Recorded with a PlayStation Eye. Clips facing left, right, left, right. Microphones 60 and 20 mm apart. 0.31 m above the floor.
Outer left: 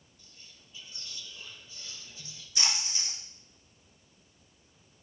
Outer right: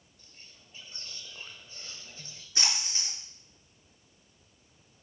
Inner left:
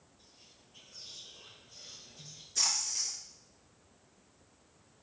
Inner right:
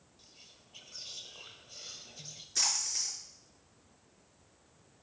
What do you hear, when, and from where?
0.2 s whispering: 40° right (ahead or behind), 1.4 m
2.5 s a splash: 35° right (ahead or behind), 5 m